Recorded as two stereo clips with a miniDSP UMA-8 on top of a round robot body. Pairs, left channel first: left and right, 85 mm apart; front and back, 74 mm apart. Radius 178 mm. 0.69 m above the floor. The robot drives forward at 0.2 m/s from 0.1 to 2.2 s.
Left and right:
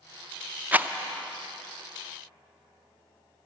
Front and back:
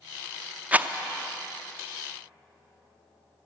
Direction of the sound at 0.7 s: 135° right.